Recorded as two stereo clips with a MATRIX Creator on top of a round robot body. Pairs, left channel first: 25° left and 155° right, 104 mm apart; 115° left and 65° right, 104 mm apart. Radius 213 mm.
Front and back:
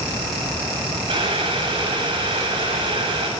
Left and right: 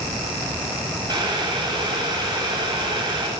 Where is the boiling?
115° right, 9.5 m.